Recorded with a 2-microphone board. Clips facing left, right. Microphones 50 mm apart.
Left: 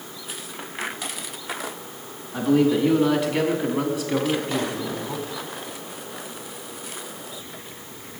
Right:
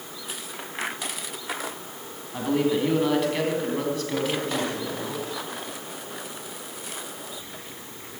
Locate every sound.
2.3 s a man speaking: 5° right (ahead or behind), 4 m; by 5.2 s 25° left (ahead or behind), 3.5 m